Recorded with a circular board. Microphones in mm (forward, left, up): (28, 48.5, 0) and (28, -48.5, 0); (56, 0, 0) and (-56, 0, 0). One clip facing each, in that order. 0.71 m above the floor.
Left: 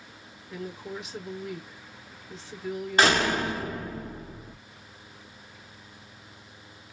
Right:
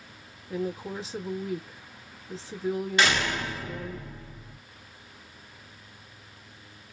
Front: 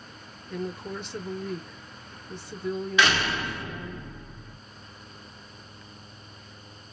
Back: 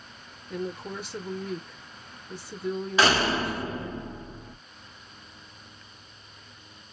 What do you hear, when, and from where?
0.5 s a woman speaking: 100° right, 1.0 m
3.0 s a door slam: 130° left, 0.6 m